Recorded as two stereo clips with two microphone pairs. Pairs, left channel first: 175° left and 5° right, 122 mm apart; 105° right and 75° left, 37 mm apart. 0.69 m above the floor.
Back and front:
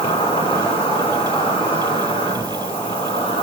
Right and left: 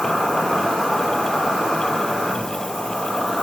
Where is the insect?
175° left, 3.5 m.